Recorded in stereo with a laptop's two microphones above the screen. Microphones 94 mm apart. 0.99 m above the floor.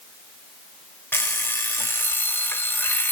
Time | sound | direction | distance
1.1 | an alarm clock | 20° left (ahead or behind) | 1.4 m